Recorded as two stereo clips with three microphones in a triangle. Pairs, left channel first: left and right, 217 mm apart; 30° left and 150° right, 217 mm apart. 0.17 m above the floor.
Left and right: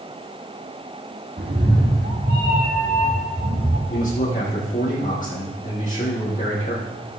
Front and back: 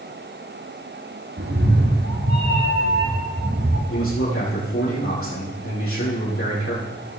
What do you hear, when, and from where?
1.4 s a cat meowing: 130° right, 3.5 m; by 3.8 s 140° right, 5 m
3.9 s a man speaking: 40° left, 6 m